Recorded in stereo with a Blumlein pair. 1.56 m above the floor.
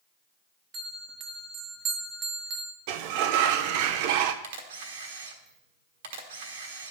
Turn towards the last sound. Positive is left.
turn(degrees=-55)